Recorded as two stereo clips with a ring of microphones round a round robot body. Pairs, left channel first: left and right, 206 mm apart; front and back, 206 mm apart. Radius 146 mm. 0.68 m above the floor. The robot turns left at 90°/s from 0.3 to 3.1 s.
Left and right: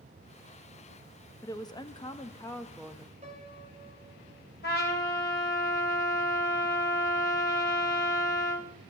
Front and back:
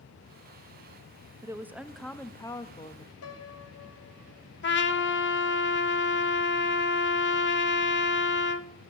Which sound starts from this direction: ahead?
A piano, at 3.2 s.